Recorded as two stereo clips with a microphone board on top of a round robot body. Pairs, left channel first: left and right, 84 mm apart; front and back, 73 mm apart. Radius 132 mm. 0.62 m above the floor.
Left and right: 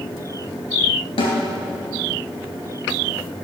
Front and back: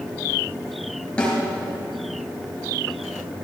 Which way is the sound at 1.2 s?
75° left.